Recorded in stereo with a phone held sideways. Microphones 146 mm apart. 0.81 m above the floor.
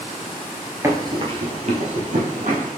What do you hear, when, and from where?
0.8 s running footsteps: 20° right (ahead or behind), 0.9 m; by 2.7 s 70° right (ahead or behind), 1.9 m